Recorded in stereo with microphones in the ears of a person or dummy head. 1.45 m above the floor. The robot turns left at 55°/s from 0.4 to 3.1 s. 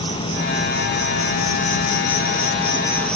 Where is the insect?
155° left, 3 m; by 3.2 s 5° left, 3 m.